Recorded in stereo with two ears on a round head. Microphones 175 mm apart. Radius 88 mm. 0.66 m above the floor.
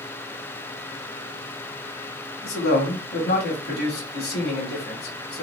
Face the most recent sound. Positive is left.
turn(degrees=55)  # may be behind; listen again after turning